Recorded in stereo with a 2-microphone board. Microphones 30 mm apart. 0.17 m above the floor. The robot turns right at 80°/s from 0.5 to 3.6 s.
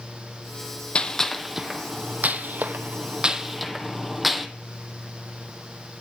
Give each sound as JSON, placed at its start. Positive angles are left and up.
{"t": 0.9, "sound": "a gunshot", "side_deg": 40, "distance_m": 0.8}